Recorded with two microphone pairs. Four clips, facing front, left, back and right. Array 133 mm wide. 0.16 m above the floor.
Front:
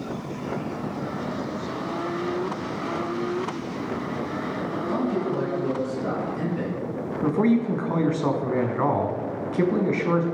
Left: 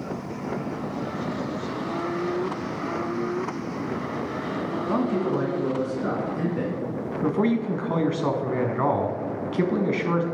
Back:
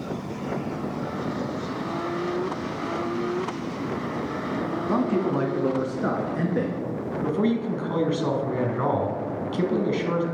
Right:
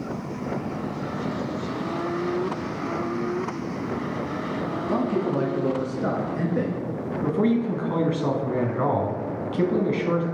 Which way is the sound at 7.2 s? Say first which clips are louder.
Right 1 dB, front 3 dB; 35° left.